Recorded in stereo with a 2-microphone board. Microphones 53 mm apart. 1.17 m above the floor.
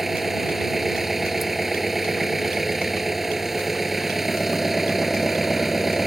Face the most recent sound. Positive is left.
turn(degrees=-5)  # may be behind; listen again after turning